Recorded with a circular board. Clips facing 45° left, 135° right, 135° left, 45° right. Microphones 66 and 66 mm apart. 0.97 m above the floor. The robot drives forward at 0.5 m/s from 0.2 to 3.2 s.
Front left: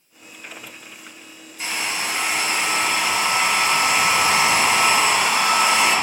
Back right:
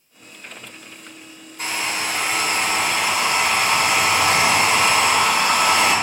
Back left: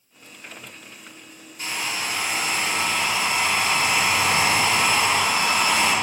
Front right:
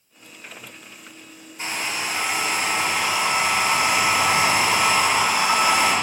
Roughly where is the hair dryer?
Right.